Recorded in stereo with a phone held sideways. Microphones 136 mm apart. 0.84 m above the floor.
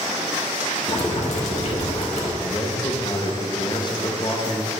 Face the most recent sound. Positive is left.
turn(degrees=35)  # may be behind; listen again after turning